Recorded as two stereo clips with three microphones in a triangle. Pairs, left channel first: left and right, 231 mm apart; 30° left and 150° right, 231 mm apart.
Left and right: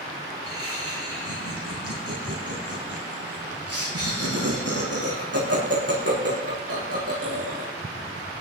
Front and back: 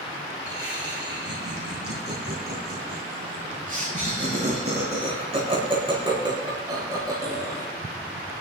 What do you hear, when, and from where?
0.5 s laughter: 110° right, 7.5 m; by 7.7 s 75° right, 8 m